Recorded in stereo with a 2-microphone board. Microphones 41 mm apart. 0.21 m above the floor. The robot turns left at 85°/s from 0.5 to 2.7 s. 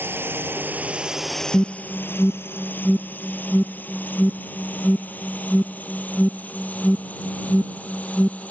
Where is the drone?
70° right (ahead or behind); by 8.5 s 40° left (ahead or behind).